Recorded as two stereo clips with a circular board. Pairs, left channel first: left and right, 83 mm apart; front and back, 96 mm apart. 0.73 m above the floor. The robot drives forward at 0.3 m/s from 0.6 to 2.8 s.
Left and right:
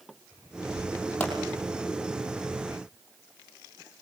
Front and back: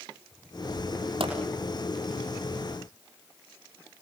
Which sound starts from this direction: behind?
A pop, at 1.2 s.